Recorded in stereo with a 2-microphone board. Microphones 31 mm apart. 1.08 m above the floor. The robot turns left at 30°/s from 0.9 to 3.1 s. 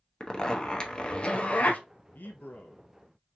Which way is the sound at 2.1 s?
75° left (ahead or behind).